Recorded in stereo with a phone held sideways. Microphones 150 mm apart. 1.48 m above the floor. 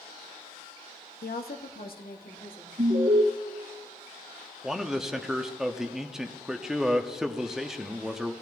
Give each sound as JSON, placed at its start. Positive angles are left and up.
{"t": 1.2, "sound": "a woman speaking", "side_deg": 90, "distance_m": 0.8}
{"t": 2.8, "sound": "an alarm", "side_deg": -55, "distance_m": 1.1}
{"t": 4.6, "sound": "a man speaking", "side_deg": -5, "distance_m": 0.8}